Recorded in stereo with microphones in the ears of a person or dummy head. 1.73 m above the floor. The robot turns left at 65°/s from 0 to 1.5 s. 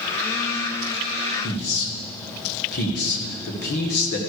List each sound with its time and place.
1.4 s a man speaking: 60° left (ahead or behind), 1.7 m